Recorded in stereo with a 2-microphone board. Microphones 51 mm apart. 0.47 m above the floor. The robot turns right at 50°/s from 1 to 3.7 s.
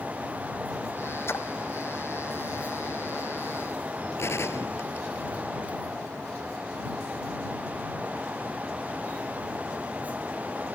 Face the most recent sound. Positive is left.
turn(degrees=55)  # may be behind; listen again after turning